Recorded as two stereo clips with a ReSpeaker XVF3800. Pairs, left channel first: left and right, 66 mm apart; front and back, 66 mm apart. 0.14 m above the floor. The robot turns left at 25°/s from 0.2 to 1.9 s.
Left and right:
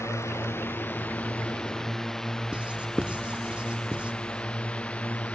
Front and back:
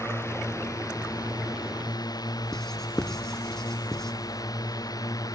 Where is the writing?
65° right.